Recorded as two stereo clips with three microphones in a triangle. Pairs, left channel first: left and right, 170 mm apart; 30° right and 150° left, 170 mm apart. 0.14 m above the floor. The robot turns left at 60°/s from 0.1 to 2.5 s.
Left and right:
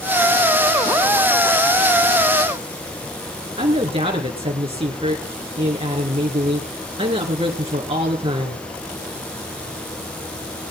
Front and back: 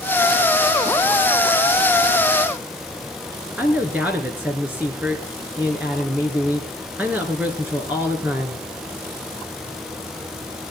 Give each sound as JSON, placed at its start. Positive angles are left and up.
{"t": 3.6, "sound": "a man speaking", "azimuth_deg": -135, "distance_m": 2.0}